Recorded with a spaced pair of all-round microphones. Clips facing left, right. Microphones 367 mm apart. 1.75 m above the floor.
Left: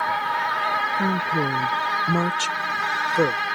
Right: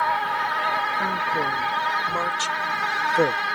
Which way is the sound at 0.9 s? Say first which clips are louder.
Left 7 dB; 40° left (ahead or behind).